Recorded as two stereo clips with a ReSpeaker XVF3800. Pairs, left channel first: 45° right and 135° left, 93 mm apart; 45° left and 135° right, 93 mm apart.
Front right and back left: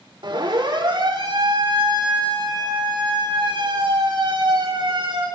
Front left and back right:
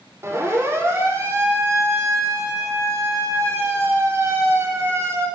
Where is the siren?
165° left, 7 m.